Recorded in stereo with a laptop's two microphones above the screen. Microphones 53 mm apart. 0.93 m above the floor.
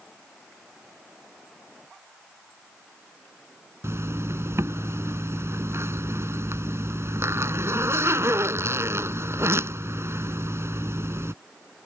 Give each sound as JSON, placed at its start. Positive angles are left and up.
{"t": 3.8, "sound": "a zipper", "side_deg": -55}